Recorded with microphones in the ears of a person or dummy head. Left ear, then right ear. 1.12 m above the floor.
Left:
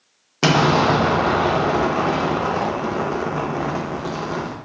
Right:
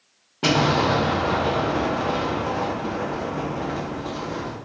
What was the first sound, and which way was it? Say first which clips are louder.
An explosion: left 4 dB; 55° left (ahead or behind).